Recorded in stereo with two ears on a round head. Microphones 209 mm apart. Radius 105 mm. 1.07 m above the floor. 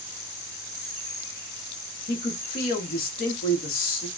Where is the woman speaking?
40° left (ahead or behind), 1.0 m.